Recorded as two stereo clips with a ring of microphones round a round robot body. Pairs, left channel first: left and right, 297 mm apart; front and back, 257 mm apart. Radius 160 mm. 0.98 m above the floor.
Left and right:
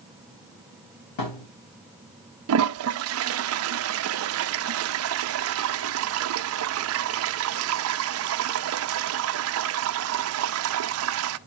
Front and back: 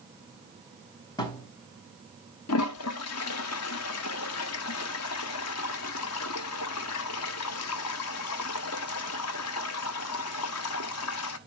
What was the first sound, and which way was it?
A thud, 75° left.